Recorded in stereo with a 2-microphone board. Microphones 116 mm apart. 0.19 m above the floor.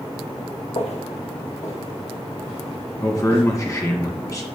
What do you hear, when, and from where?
0.8 s footsteps: 85° left, 1.6 m; by 3.4 s 70° left (ahead or behind), 4 m
3.0 s a man speaking: 30° left (ahead or behind), 1.9 m